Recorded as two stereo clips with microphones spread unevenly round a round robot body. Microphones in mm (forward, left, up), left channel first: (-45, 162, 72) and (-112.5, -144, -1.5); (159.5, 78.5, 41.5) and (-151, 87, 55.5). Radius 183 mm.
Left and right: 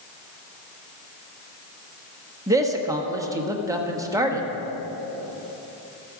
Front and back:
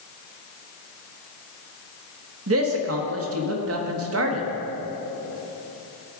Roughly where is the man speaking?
Behind.